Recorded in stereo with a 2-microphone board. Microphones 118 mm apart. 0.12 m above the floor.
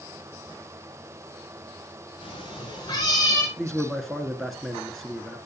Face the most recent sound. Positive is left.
turn(degrees=0)  # may be behind; listen again after turning